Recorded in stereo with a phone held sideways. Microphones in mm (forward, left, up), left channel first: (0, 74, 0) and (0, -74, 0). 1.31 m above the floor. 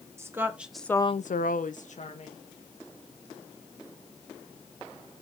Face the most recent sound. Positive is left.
turn(degrees=50)  # may be behind; listen again after turning